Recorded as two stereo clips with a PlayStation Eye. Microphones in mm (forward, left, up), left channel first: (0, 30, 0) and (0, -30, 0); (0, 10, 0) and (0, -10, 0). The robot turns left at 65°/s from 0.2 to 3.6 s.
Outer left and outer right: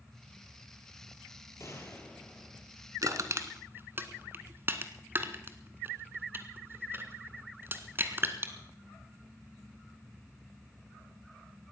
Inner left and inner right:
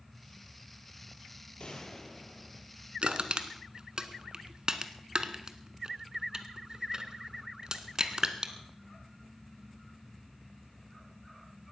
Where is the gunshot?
55° left, 2.5 m; by 2.7 s 15° right, 2.5 m.